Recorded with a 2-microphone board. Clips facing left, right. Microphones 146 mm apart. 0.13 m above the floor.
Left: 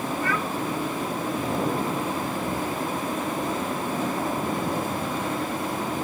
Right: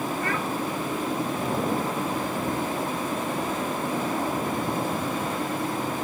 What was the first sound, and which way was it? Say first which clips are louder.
A child speaking: left 1 dB; 80° right.